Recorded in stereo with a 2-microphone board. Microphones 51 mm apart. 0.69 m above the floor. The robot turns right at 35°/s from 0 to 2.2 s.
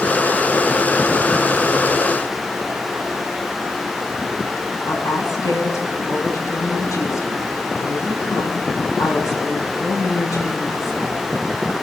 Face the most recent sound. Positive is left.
turn(degrees=85)